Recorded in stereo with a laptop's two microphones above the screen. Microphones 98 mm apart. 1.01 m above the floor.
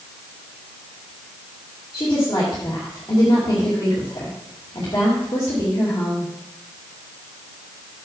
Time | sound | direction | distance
1.9 | a woman speaking | 45° left (ahead or behind) | 2.5 m